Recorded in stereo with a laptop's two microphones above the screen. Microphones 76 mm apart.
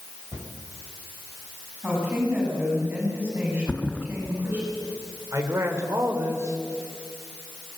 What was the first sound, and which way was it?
A cupboard door, 50° right (ahead or behind).